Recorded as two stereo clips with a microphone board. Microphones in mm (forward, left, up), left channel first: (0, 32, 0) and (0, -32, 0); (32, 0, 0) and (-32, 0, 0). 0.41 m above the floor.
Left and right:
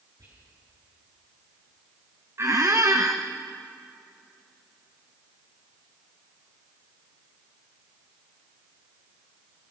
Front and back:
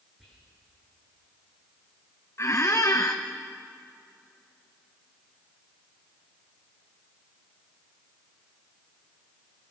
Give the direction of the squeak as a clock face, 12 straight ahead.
1 o'clock.